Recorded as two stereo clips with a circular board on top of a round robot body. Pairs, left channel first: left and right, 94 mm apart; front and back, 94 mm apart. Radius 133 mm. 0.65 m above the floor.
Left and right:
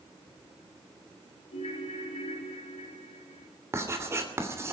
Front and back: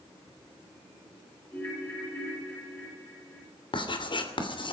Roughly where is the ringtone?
Left.